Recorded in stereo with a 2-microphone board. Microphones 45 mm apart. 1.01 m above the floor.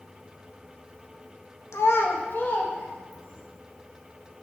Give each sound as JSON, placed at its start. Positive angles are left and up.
{"t": 1.7, "sound": "a child speaking", "side_deg": 85, "distance_m": 0.5}